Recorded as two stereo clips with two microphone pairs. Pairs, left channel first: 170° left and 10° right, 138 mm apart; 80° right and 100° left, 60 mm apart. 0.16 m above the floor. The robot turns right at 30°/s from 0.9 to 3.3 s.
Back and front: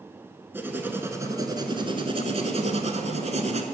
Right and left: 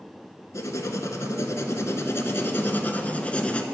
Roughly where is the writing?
Right.